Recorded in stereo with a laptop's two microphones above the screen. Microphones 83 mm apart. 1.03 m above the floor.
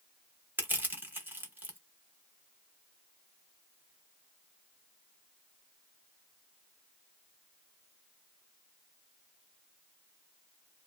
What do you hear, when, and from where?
0.6 s crushing: 25° right (ahead or behind), 0.7 m